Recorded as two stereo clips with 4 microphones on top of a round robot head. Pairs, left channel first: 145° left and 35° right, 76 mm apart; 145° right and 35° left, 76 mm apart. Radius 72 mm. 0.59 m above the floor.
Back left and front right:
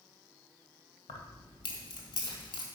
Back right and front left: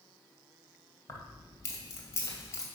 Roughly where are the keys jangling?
Behind.